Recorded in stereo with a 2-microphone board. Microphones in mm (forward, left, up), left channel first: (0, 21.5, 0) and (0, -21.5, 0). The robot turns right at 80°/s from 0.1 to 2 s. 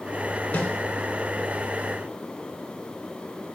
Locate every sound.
0.5 s a snare drum: 50° left (ahead or behind), 2.5 m; by 0.7 s 65° left (ahead or behind), 2.5 m